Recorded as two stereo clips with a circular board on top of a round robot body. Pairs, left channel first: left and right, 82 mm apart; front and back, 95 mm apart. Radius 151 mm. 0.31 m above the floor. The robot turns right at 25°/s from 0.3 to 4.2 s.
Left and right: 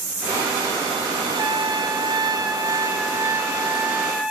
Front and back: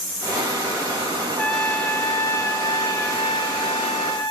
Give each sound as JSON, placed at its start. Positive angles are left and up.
{"t": 1.4, "sound": "a trumpet", "azimuth_deg": -80, "distance_m": 0.9}